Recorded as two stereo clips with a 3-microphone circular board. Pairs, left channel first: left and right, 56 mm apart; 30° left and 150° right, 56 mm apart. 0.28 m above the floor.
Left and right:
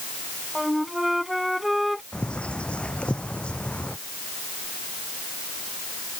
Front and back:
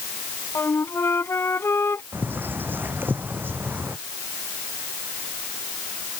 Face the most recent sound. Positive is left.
turn(degrees=160)